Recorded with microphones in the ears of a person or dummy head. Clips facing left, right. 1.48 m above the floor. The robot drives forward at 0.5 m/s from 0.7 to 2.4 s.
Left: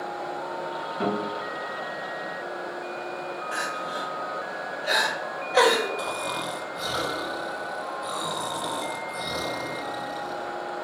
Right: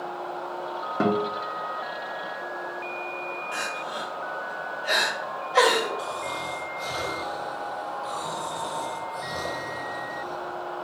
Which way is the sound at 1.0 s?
70° right (ahead or behind).